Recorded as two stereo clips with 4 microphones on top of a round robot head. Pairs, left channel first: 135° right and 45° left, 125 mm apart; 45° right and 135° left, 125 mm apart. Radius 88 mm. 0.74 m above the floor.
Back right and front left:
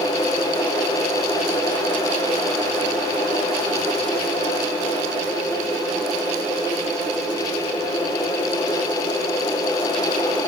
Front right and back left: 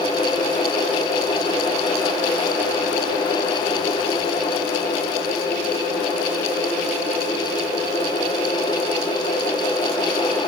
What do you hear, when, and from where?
Only background noise.